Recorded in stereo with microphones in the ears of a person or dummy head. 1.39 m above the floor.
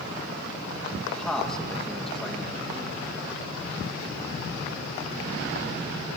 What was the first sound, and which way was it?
A man speaking, centre (ahead or behind).